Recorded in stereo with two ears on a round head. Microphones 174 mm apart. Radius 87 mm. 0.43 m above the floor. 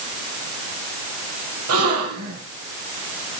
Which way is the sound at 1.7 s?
80° right.